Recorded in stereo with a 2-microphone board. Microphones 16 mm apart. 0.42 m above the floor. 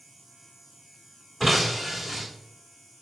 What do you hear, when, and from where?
1.4 s breaking glass: centre (ahead or behind), 4 m